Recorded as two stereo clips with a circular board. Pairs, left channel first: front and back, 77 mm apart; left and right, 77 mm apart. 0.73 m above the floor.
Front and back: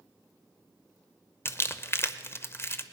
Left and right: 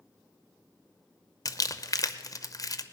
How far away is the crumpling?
About 0.7 m.